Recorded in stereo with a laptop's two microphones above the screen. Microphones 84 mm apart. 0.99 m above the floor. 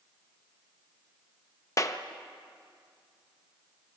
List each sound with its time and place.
1.8 s a clap: 40° left (ahead or behind), 0.9 m